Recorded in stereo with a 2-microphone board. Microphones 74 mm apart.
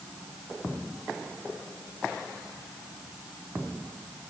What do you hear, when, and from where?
Only background noise.